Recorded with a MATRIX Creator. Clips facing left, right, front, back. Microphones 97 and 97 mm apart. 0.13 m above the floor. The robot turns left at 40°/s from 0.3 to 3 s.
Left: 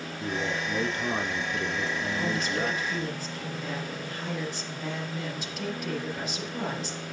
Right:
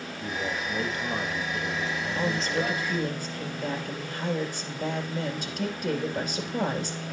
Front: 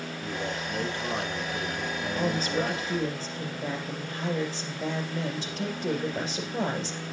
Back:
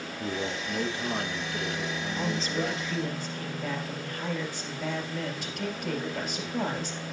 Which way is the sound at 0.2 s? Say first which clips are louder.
Left 1 dB, back 2 dB; 140° left.